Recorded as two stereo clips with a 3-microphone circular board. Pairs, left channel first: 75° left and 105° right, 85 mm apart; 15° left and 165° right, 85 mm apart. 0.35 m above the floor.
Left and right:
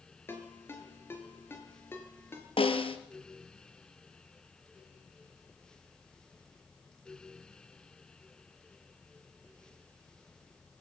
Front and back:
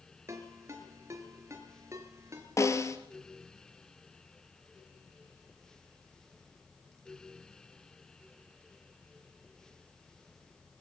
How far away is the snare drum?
About 1.9 m.